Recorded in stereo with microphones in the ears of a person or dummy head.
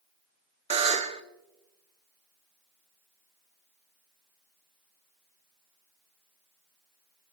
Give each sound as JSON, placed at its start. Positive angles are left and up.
{"t": 0.7, "sound": "a buzzer", "side_deg": -35, "distance_m": 0.6}